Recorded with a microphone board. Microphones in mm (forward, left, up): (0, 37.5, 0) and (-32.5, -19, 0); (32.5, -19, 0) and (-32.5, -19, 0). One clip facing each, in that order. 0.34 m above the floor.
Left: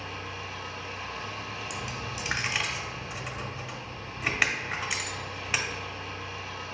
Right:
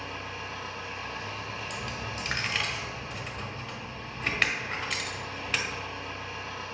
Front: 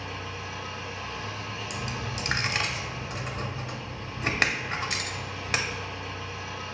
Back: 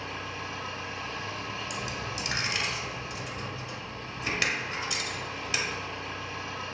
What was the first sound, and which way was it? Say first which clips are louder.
An engine running: even, even; 150° right.